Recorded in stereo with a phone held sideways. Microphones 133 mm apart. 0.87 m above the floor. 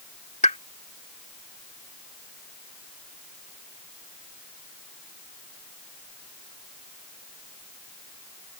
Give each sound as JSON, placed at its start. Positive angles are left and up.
{"t": 0.4, "sound": "a pop", "side_deg": 65}